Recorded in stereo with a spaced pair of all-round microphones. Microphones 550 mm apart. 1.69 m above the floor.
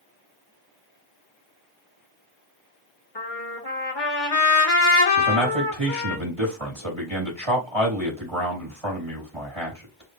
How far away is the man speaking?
About 3 m.